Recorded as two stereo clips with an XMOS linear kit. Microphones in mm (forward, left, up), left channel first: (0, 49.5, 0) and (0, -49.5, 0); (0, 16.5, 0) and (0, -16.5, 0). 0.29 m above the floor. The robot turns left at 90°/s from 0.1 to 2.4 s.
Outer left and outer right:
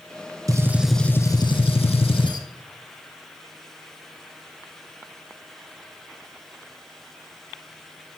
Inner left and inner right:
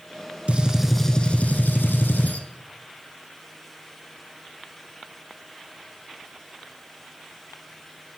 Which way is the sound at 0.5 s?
140° right.